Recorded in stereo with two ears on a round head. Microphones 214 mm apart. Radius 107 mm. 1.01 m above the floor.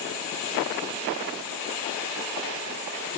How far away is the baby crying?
I don't hear a baby crying.